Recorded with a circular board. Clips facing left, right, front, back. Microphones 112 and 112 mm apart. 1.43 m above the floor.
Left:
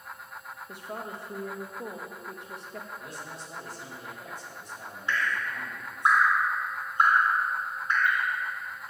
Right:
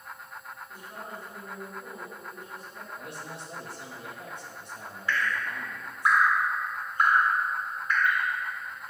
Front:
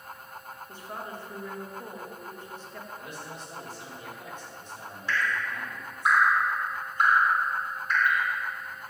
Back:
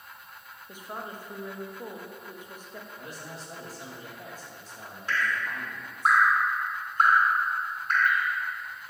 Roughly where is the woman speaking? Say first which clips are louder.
Left 6 dB, back 1 dB; left.